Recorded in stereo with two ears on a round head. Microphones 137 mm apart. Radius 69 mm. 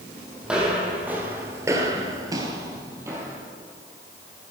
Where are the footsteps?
5° right (ahead or behind), 2.5 m; by 3.4 s 15° right (ahead or behind), 2.5 m.